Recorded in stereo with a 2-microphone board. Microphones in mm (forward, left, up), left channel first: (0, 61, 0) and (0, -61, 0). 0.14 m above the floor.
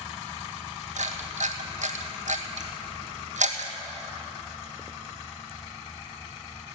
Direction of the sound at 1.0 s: 80° right.